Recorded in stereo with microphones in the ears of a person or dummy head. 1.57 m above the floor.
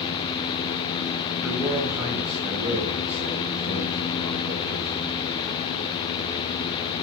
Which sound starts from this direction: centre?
A man speaking, at 1.4 s.